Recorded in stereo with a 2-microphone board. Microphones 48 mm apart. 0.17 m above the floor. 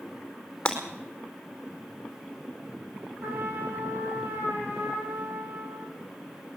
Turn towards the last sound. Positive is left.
turn(degrees=-55)  # may be behind; listen again after turning